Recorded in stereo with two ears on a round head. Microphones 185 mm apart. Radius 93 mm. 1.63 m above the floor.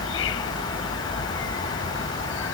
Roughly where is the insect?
Left.